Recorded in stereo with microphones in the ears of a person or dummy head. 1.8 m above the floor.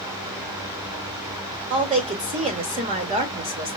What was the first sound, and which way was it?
A woman speaking, 30° right (ahead or behind).